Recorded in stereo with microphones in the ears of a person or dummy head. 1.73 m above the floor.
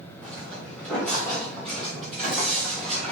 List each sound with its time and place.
0.2 s footsteps: 10° left (ahead or behind), 4 m; by 3.1 s 5° left (ahead or behind), 5.5 m